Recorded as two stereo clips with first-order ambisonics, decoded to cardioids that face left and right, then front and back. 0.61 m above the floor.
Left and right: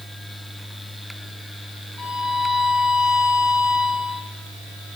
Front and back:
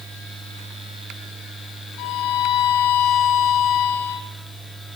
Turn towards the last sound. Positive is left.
turn(degrees=15)